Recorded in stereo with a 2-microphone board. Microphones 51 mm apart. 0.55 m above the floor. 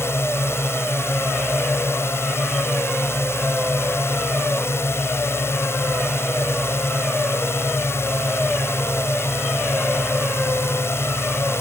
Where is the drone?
55° left (ahead or behind).